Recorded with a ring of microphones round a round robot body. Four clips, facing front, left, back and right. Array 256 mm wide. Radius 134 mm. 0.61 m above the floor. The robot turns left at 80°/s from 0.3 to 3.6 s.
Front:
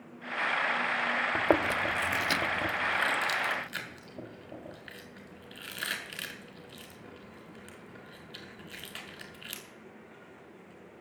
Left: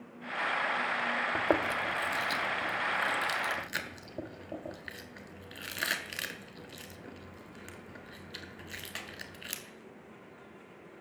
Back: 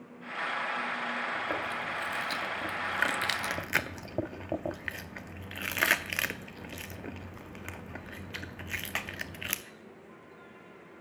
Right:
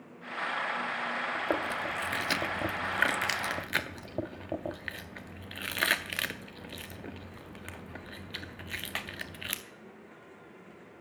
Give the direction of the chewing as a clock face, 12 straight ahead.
11 o'clock.